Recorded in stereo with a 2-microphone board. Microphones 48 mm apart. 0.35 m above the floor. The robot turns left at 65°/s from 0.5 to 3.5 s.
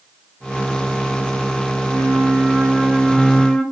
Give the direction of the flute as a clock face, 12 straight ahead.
3 o'clock.